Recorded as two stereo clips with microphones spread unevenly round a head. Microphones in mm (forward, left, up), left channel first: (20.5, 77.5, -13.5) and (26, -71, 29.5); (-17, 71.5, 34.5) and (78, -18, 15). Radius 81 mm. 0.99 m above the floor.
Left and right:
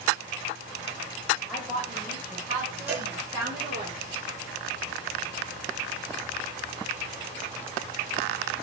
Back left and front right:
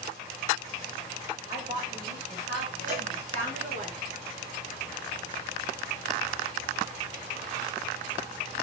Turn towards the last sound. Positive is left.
turn(degrees=-15)